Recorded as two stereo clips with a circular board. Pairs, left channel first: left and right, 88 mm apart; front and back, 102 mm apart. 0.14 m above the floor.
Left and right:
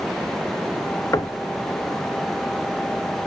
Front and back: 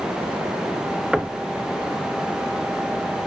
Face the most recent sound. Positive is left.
turn(degrees=105)